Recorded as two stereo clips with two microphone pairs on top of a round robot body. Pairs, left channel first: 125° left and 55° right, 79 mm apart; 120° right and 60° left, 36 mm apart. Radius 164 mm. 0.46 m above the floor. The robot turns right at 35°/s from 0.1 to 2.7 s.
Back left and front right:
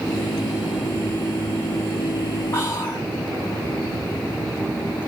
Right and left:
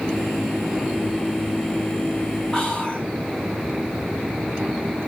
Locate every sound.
2.5 s whispering: 175° right, 2.0 m; by 3.1 s 170° right, 2.0 m